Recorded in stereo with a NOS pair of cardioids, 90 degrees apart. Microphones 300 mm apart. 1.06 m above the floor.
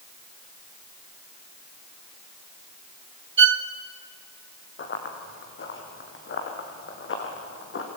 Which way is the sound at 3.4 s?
45° right.